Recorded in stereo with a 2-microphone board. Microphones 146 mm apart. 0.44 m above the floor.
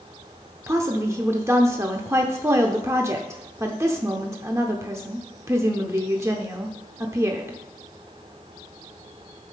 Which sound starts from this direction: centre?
A woman speaking, at 0.7 s.